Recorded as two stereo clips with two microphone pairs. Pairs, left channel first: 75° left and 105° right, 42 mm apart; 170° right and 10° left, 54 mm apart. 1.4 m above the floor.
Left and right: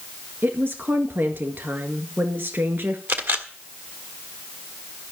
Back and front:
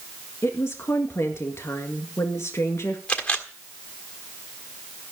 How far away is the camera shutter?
About 1.5 m.